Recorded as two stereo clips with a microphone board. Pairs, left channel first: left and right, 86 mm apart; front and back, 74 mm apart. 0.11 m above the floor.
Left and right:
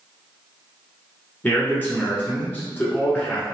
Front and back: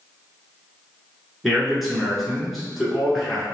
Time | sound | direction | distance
1.4 | a man speaking | 95° left | 1.1 m